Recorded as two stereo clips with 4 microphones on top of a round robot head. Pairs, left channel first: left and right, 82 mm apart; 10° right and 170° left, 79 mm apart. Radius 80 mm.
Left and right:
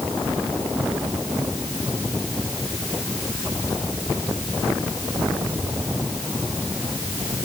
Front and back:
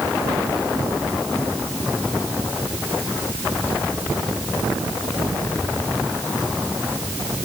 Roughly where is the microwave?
I don't hear a microwave.